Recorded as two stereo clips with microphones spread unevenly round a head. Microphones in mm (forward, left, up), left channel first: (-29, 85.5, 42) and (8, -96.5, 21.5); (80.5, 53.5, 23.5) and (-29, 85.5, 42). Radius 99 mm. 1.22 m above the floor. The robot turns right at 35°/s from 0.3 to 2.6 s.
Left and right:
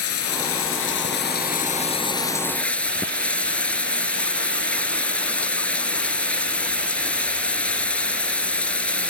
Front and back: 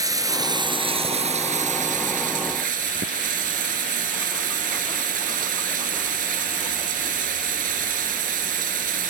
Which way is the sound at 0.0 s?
105° left.